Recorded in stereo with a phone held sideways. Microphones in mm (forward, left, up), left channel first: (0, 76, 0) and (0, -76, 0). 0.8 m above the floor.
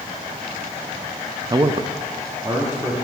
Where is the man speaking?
25° right (ahead or behind), 0.6 m; by 3.0 s 15° right (ahead or behind), 1.8 m.